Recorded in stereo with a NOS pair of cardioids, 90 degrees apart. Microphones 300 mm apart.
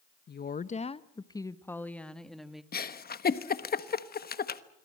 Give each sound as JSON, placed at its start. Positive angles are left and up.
{"t": 0.3, "sound": "a woman speaking", "azimuth_deg": 35, "distance_m": 0.9}
{"t": 2.7, "sound": "a giggle", "azimuth_deg": 30, "distance_m": 1.3}